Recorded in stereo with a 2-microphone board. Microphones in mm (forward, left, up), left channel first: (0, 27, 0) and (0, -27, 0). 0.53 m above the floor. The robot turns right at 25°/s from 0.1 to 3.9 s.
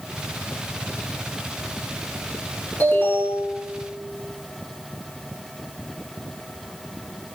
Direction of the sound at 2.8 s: 35° left (ahead or behind).